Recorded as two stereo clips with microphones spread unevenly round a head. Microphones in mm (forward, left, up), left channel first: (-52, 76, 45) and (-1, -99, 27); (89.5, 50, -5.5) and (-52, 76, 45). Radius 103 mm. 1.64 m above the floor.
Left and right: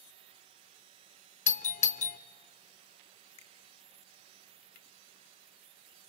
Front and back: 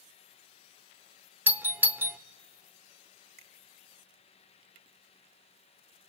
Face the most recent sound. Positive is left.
turn(degrees=160)